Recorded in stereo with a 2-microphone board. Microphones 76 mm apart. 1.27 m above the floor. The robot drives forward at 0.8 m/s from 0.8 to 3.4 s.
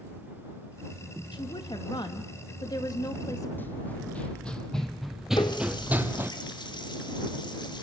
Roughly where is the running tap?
Left.